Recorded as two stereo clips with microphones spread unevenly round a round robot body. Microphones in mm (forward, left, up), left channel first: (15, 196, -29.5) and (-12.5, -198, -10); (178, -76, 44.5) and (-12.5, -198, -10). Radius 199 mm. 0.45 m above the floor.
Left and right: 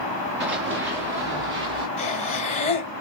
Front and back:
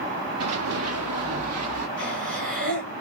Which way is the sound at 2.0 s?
160° left.